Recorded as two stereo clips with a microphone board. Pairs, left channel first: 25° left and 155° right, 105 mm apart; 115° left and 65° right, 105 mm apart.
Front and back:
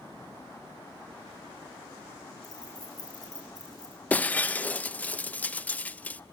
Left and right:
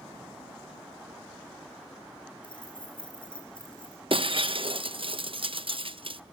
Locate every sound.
2.4 s keys jangling: 75° left, 7 m
4.1 s breaking glass: 50° right, 0.5 m